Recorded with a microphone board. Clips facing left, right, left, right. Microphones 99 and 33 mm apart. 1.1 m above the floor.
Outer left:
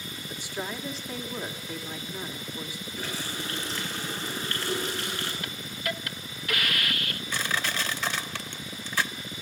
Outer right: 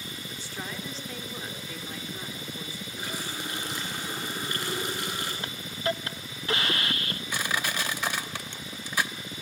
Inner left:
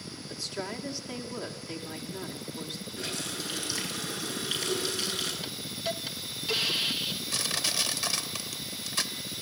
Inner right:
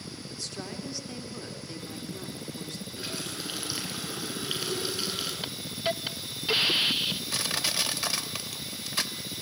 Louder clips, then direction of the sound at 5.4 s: Outer right 4 dB, inner right 3 dB; 30° right (ahead or behind).